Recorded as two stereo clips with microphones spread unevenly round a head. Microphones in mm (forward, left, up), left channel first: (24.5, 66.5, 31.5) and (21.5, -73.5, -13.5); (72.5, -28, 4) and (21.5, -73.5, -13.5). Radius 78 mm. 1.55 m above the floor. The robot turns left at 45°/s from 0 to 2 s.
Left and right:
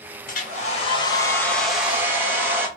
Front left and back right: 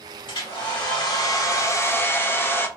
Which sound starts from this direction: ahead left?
A hair dryer, at 0.3 s.